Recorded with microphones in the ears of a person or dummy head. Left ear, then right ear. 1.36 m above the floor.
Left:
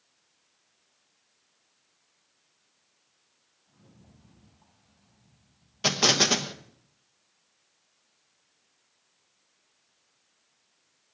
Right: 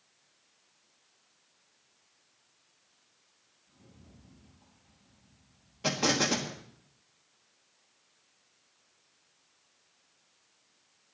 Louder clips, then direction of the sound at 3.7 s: Even; 80° left.